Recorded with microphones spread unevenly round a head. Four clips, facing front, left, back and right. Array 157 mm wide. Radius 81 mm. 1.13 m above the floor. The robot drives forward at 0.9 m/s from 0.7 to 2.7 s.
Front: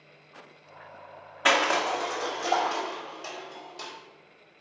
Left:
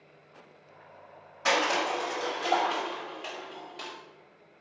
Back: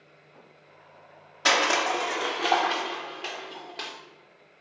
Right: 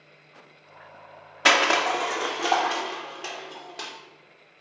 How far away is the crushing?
About 1.1 m.